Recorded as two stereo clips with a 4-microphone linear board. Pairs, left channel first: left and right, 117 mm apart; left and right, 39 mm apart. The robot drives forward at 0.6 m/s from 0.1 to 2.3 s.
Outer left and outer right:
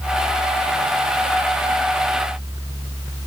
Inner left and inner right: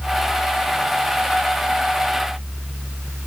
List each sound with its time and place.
Only background noise.